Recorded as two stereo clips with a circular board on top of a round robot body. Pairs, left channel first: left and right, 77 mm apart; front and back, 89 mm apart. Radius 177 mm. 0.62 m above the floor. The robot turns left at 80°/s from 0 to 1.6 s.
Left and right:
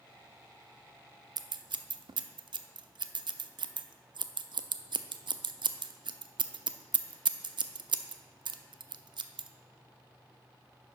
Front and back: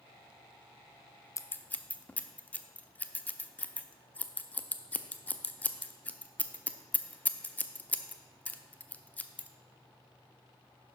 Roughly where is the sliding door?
No sliding door in this recording.